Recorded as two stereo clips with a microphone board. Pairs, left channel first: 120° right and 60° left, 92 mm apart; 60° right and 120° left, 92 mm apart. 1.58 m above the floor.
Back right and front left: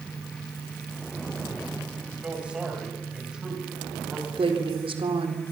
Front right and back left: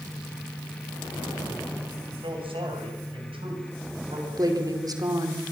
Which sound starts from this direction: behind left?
A man speaking, at 2.1 s.